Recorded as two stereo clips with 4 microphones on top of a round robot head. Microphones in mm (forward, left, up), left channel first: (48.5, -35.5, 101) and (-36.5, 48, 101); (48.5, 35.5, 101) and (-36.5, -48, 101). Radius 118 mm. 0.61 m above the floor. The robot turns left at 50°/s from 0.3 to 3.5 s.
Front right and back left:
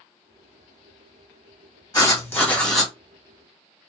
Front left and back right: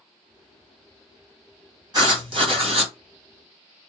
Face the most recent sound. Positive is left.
turn(degrees=-170)